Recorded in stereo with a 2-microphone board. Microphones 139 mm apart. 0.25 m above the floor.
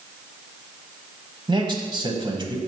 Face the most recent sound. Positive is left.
turn(degrees=-35)  # may be behind; listen again after turning